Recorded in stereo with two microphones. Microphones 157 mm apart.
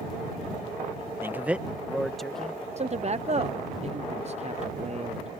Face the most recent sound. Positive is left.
turn(degrees=-45)  # may be behind; listen again after turning